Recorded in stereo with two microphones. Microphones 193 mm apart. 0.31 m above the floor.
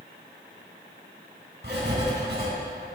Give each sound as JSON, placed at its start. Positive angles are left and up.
{"t": 1.6, "sound": "writing", "side_deg": -65, "distance_m": 2.0}